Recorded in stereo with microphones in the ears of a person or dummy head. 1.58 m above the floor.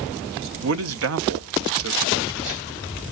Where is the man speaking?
70° right (ahead or behind), 1.0 m.